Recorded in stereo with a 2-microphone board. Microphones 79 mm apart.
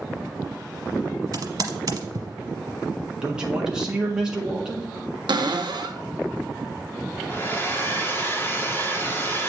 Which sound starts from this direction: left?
A hair dryer, at 7.3 s.